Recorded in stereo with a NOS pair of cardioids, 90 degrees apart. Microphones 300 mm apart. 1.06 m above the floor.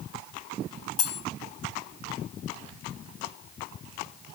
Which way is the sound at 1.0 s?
55° left.